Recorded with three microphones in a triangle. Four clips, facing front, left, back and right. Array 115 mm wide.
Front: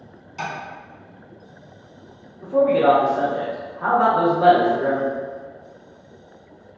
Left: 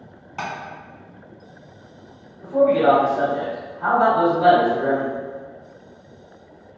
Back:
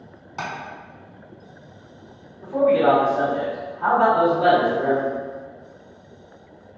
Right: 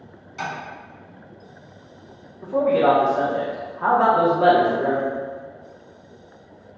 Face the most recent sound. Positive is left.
turn(degrees=-65)